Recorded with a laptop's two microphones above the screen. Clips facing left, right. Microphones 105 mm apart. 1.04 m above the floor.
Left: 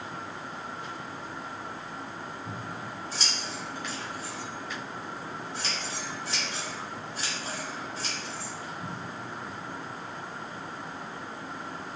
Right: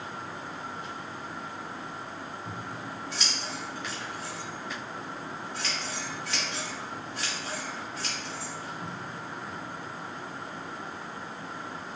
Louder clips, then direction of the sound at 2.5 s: Even; 30° left (ahead or behind).